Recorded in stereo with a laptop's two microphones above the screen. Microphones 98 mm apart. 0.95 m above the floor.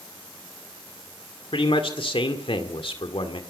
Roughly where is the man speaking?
Left.